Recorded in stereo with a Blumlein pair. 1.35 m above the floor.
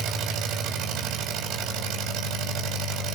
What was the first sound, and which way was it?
An engine running, 35° right.